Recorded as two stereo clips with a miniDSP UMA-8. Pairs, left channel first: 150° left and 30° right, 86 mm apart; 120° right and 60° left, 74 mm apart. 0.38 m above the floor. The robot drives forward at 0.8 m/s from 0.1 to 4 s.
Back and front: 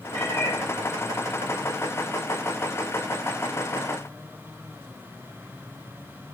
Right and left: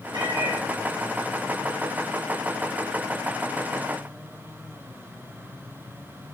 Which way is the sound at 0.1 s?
90° left.